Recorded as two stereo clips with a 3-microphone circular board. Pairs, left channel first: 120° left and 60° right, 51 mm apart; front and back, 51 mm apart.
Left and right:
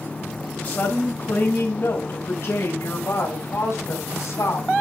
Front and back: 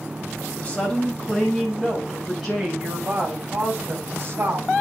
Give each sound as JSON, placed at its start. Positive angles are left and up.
{"t": 0.6, "sound": "a woman speaking", "azimuth_deg": 70, "distance_m": 3.5}